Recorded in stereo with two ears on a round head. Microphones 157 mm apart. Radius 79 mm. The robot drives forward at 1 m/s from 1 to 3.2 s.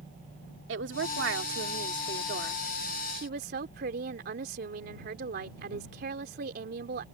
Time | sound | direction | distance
0.7 | a woman speaking | 75° right (ahead or behind) | ?